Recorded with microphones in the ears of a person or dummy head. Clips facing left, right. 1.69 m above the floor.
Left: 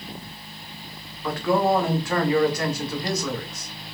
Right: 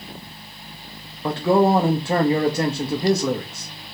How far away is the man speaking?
About 1.2 m.